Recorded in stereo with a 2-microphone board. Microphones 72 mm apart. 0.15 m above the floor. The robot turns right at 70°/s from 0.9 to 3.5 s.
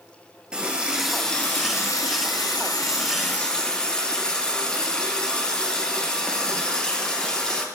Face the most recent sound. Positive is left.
turn(degrees=165)